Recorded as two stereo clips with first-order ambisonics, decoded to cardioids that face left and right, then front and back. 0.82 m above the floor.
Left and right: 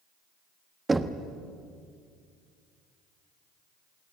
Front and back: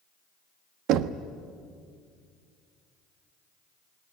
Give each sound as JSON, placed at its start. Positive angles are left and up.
{"t": 0.9, "sound": "knocking", "azimuth_deg": -165, "distance_m": 1.0}